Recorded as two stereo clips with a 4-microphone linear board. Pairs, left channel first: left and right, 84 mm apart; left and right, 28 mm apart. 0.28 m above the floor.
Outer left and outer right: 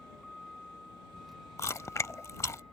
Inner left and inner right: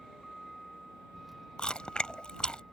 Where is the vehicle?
Centre (ahead or behind).